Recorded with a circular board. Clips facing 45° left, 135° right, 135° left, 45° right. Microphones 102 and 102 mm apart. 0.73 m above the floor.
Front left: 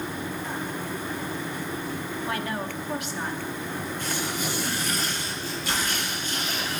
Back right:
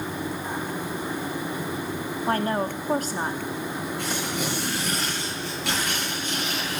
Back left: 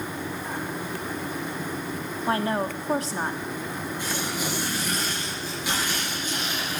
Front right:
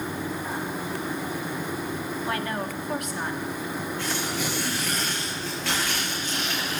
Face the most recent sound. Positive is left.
turn(degrees=-150)